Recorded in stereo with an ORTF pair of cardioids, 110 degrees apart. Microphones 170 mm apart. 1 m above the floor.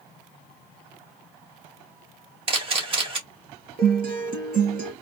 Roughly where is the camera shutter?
Ahead right.